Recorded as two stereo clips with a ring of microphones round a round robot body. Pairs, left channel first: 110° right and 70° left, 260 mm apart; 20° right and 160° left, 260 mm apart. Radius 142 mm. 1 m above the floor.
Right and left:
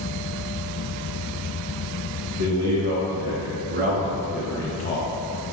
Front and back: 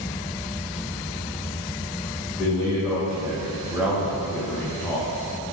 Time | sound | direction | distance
2.4 | a man speaking | 80° left | 1.2 m